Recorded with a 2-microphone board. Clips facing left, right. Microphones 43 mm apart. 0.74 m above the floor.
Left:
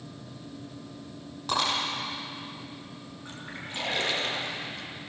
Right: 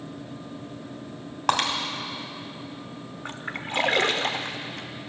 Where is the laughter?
I don't hear laughter.